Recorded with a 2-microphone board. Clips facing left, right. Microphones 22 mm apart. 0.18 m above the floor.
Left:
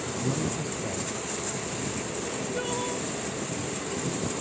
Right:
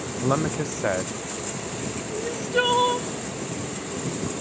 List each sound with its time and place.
0.2 s a man speaking: 70° right (ahead or behind)
2.1 s crying: 55° right (ahead or behind)